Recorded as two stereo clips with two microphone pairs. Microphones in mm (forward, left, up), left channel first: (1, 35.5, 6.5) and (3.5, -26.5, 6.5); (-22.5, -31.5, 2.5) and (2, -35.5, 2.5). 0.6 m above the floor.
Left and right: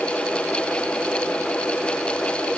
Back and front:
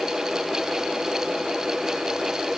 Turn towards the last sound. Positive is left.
No sound to turn to.